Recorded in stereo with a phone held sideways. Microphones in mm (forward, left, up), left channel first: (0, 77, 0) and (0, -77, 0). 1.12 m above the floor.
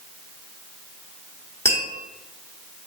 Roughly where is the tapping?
Centre.